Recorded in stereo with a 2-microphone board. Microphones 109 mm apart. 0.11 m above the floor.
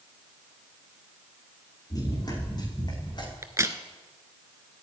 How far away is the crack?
About 1.1 m.